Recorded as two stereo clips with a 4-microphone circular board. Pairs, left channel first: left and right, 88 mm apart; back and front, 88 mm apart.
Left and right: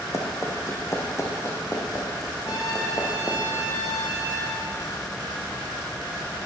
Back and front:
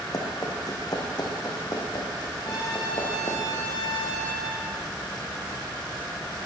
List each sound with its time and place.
0.1 s running footsteps: 140° left, 3 m; by 3.4 s 145° left, 4.5 m
2.5 s a trumpet: 135° left, 7 m